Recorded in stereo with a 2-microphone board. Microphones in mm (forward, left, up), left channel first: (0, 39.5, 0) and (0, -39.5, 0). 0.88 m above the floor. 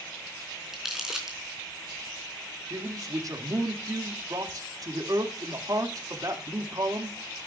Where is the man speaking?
45° right (ahead or behind), 1.8 m.